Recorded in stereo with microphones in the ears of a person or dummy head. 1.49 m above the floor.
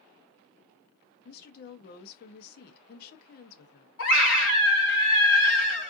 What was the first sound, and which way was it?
A woman speaking, 55° left (ahead or behind).